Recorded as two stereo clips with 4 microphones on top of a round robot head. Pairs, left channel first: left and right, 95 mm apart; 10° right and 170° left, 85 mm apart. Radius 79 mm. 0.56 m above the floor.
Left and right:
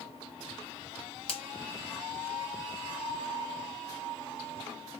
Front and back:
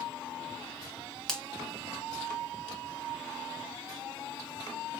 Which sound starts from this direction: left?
A finger snap, at 1.3 s.